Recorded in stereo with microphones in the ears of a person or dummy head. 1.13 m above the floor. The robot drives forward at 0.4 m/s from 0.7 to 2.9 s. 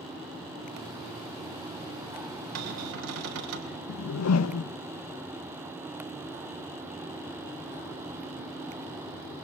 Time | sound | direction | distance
2.5 | a cupboard door | 80° right | 3.5 m
3.9 | a whoosh | 85° left | 0.6 m